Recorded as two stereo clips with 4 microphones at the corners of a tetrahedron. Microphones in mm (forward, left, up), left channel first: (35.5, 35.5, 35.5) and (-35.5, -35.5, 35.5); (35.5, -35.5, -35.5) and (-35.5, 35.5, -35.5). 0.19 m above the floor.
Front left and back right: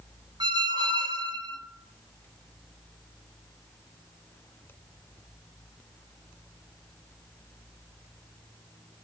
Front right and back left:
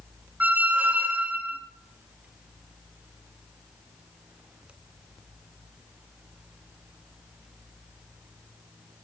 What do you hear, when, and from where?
0.4 s a squeak: 155° right, 0.8 m